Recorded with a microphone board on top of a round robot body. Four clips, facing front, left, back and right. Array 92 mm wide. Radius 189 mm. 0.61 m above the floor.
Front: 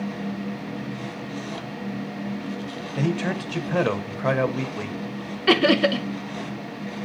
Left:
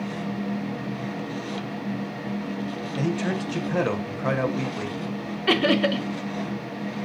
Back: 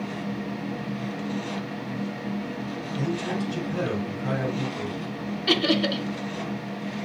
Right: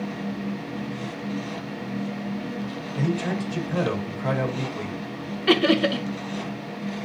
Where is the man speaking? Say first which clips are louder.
Even, front 3 dB; 20° left, 2 m.